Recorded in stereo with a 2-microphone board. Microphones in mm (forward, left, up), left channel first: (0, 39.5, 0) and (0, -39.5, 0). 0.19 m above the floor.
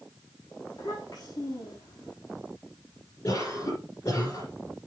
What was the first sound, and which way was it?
A child speaking, 65° left (ahead or behind).